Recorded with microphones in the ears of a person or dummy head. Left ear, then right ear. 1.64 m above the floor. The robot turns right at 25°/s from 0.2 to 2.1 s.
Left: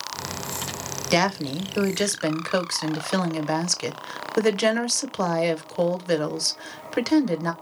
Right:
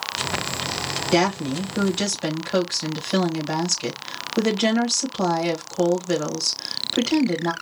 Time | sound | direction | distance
1.1 | a woman speaking | 60° left (ahead or behind) | 1.1 m